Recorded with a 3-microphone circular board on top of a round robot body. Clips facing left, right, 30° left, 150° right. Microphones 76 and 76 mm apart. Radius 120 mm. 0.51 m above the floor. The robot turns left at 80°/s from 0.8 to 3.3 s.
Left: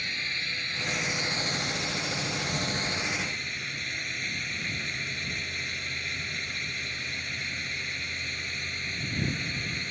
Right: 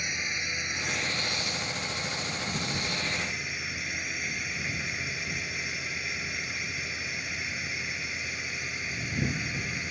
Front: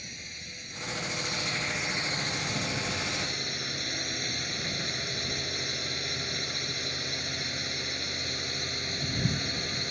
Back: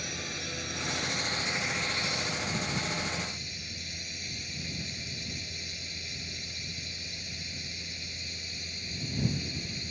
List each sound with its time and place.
0.0 s a drone: 165° right; by 9.9 s 5° right